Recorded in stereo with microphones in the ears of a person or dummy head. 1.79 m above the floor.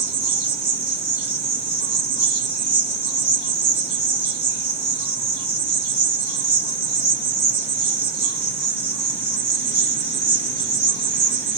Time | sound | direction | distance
0.0 | an insect | 10° right (ahead or behind) | 1.2 m